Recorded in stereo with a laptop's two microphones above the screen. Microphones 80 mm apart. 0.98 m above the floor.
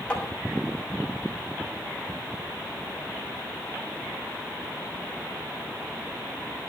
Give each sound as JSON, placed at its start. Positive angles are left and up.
{"t": 0.1, "sound": "tapping", "side_deg": 15, "distance_m": 6.5}